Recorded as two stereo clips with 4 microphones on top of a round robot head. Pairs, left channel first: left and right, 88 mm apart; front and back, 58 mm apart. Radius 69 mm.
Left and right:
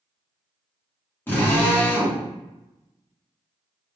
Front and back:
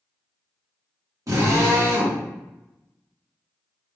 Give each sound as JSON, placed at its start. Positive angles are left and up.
{"t": 1.3, "sound": "a drill", "azimuth_deg": 155, "distance_m": 2.5}